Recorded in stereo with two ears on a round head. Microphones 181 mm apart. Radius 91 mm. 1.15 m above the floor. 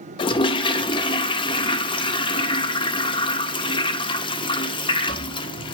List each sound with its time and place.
0.2 s a toilet flushing: 25° left (ahead or behind), 0.5 m